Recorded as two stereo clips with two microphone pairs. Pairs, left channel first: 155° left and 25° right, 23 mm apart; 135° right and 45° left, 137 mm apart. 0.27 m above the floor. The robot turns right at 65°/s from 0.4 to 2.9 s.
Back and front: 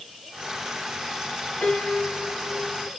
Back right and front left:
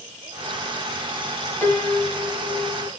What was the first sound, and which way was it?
A piano, 150° left.